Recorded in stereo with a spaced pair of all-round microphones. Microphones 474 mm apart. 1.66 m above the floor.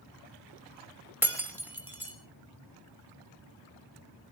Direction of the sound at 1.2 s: 5° right (ahead or behind).